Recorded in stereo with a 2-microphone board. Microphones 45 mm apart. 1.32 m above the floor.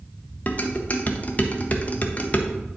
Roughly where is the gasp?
No gasp in this recording.